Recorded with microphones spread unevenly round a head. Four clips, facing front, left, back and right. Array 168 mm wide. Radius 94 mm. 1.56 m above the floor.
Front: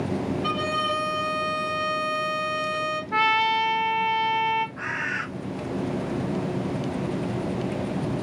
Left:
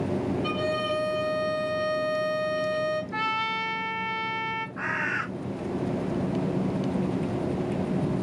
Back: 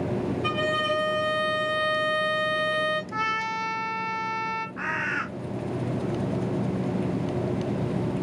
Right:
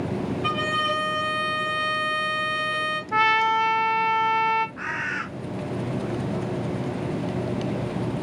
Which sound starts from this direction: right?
A violin, at 0.4 s.